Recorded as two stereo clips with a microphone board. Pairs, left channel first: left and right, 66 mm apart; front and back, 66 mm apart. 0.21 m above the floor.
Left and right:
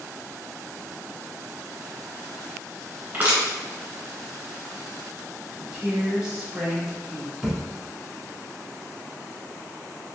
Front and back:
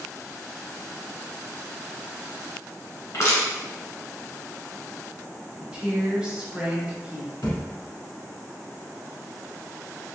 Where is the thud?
5° left, 1.0 m.